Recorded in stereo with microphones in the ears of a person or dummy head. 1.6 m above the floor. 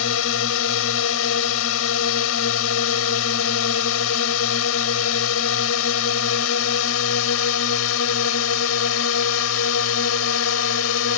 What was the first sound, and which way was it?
A drone, 80° left.